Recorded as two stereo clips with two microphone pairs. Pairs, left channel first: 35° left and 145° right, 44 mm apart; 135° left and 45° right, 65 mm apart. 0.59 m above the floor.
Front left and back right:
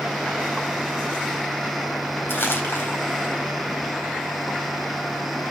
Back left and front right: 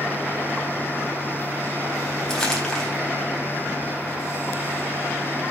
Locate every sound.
2.3 s crumpling: 55° left, 4 m